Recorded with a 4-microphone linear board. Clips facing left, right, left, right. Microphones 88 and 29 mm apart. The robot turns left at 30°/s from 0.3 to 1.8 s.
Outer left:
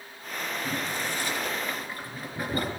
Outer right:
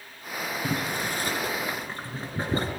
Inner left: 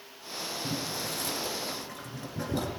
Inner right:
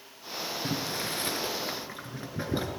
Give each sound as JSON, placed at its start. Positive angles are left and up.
{"t": 0.6, "sound": "boiling", "side_deg": -60, "distance_m": 4.0}